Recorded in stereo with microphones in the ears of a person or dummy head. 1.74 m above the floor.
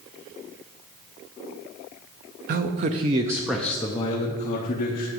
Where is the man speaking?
45° right (ahead or behind), 0.7 m; by 5.1 s 45° left (ahead or behind), 1.1 m.